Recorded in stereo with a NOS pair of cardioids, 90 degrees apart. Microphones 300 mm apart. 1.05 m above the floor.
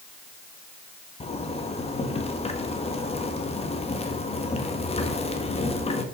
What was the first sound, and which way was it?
A zipper, 20° left.